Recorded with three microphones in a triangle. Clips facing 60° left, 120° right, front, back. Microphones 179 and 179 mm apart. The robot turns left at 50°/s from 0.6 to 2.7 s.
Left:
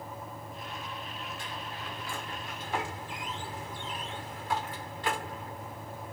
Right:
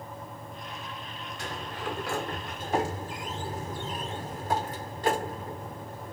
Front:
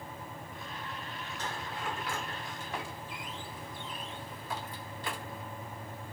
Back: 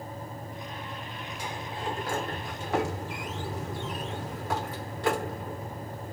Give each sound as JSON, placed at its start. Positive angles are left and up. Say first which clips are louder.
{"t": 1.4, "sound": "a sliding door", "louder": "right 5 dB, back 3 dB", "azimuth_deg": -100}